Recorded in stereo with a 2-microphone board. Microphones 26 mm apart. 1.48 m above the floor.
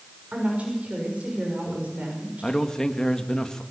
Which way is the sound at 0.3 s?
70° right (ahead or behind).